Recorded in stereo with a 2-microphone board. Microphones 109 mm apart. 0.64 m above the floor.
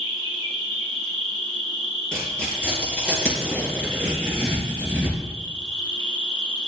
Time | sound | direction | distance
0.0 | an insect | 50° left (ahead or behind) | 3 m
2.1 | tearing paper | 10° left (ahead or behind) | 4.5 m